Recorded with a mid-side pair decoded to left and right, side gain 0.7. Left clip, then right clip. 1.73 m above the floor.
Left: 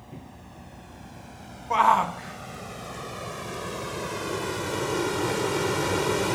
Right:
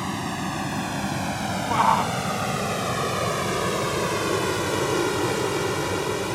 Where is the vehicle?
65° right; by 6.4 s 10° left.